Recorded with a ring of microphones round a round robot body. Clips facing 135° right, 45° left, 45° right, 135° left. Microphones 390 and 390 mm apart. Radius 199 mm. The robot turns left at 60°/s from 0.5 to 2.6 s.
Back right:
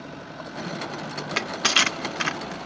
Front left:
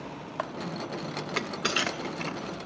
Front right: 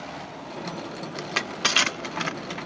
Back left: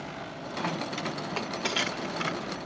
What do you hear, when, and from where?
1.2 s crushing: 50° right, 1.5 m; by 2.6 s 130° right, 1.5 m